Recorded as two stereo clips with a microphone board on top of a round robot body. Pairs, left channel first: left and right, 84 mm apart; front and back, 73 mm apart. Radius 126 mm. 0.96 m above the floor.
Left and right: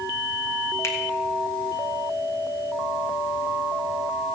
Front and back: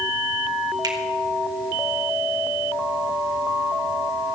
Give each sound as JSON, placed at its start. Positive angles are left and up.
{"t": 0.8, "sound": "a finger snap", "azimuth_deg": 145, "distance_m": 2.0}